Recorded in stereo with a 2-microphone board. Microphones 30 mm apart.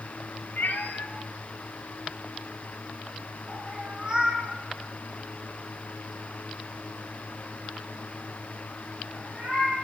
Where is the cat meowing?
85° left, 0.8 m; by 9.8 s 45° right (ahead or behind), 4.5 m.